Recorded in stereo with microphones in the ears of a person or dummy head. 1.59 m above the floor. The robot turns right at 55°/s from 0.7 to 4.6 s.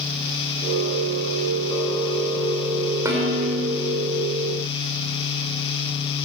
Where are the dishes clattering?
165° right, 3 m; by 3.7 s 130° right, 3 m.